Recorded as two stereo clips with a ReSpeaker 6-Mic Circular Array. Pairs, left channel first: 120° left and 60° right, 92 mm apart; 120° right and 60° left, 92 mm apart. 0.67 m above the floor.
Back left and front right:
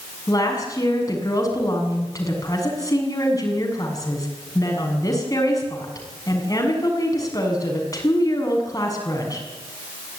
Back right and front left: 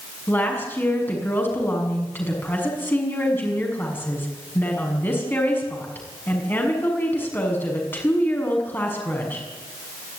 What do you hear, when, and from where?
0.3 s a woman speaking: 175° left, 6.5 m